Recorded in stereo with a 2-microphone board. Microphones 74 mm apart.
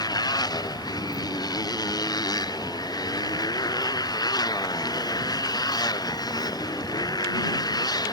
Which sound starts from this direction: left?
A motorcycle, at 0.0 s.